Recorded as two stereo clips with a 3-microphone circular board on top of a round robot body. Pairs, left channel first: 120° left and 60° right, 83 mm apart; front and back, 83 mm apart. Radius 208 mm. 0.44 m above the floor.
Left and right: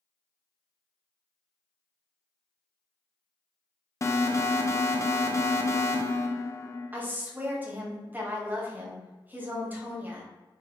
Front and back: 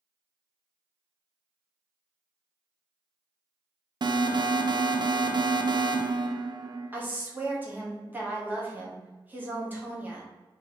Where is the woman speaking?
120° right, 1.4 m.